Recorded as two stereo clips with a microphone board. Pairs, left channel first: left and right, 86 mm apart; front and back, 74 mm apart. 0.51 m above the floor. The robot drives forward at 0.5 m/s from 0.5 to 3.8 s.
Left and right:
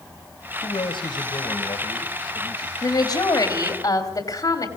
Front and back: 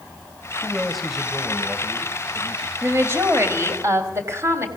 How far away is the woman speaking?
About 3 m.